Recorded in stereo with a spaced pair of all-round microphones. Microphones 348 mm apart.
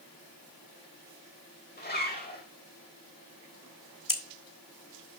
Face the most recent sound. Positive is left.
turn(degrees=65)  # may be behind; listen again after turning